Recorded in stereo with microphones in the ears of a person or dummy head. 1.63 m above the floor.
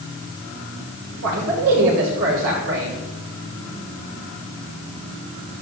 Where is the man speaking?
75° right (ahead or behind), 5.5 m.